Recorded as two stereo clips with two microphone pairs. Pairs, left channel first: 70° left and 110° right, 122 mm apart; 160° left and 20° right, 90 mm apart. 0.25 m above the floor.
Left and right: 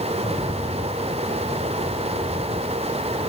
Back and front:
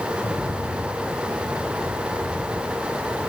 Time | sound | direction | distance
0.1 | a rattle | 105° left | 5 m